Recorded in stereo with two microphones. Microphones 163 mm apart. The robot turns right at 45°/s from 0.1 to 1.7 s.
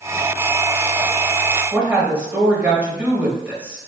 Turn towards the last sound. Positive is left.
turn(degrees=-10)  # may be behind; listen again after turning